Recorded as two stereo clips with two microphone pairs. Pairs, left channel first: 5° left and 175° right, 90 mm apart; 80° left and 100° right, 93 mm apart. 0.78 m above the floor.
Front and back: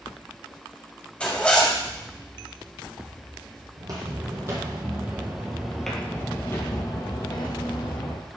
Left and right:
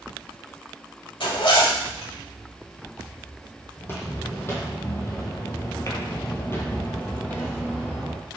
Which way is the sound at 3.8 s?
145° left.